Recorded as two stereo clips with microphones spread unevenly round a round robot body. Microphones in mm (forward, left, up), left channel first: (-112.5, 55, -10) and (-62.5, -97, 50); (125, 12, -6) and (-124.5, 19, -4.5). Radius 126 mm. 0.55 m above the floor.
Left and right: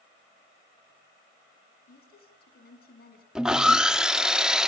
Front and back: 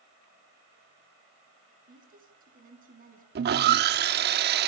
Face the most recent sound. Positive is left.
turn(degrees=175)